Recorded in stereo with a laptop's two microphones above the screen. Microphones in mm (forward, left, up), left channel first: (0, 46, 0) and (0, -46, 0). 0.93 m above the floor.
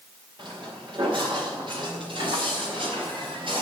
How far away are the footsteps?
About 6 m.